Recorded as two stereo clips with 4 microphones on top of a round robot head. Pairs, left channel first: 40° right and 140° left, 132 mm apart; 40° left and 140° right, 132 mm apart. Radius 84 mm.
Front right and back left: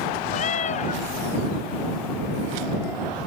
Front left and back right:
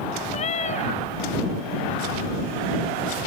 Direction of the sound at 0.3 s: Straight ahead.